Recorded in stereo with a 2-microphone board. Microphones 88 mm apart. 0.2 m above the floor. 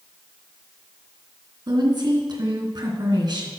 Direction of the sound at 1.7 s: 55° right (ahead or behind).